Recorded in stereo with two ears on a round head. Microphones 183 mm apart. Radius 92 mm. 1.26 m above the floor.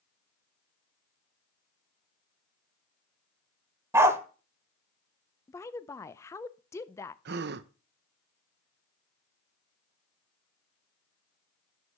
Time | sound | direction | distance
3.9 | a dog barking | 15° right (ahead or behind) | 1.0 m
5.5 | a woman speaking | 15° left (ahead or behind) | 0.5 m
7.2 | a gasp | 55° right (ahead or behind) | 0.5 m